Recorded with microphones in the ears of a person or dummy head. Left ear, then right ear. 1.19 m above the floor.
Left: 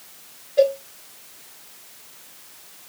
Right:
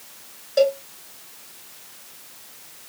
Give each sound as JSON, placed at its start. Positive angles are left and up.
{"t": 0.6, "sound": "a cowbell", "side_deg": -70, "distance_m": 2.5}